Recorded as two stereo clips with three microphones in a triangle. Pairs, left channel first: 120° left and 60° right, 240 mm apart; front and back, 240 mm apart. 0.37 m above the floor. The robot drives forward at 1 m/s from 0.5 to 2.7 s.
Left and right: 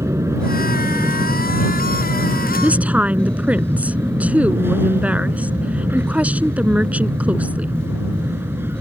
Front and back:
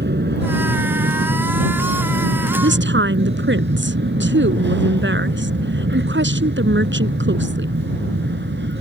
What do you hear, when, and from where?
0.0 s an aircraft: 140° right
2.6 s a woman speaking: 145° right